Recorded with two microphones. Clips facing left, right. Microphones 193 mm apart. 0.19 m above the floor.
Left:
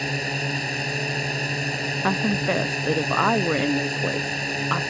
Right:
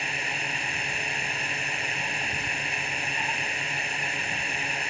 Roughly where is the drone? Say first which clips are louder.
Left 8 dB; left.